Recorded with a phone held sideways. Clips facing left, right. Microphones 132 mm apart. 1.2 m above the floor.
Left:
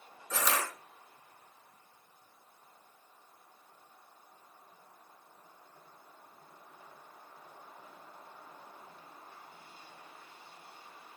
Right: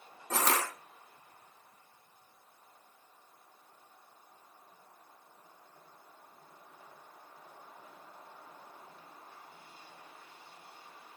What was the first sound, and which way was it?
Crushing, 70° right (ahead or behind).